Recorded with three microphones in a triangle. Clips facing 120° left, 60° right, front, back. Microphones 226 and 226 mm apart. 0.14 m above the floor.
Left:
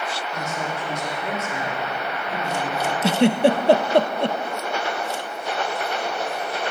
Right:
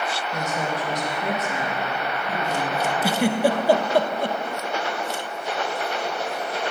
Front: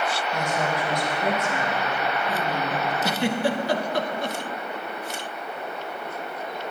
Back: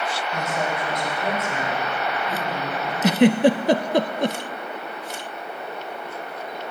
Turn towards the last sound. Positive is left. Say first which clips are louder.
# left 5 dB, back 11 dB
turn(degrees=180)